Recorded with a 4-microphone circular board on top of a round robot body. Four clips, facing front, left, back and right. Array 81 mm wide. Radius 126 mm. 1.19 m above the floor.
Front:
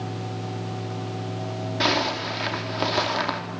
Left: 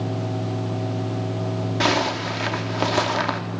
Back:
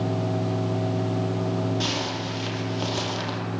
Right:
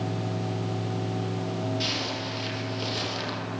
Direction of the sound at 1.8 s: 60° left.